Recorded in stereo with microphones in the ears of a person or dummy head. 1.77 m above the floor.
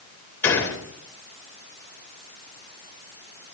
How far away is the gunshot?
About 2.5 m.